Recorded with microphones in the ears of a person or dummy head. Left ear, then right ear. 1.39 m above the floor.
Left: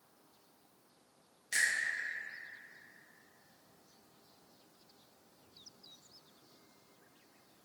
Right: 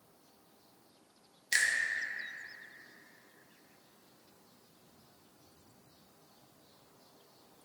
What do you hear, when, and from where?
1.5 s a finger snap: 30° right (ahead or behind), 0.6 m